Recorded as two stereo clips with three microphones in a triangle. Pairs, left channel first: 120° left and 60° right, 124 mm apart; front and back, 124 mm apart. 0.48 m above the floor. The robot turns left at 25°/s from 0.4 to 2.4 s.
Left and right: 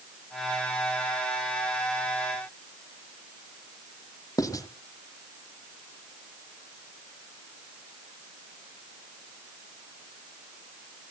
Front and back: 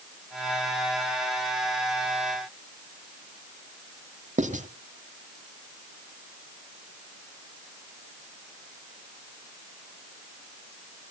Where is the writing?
Straight behind, 1.0 m.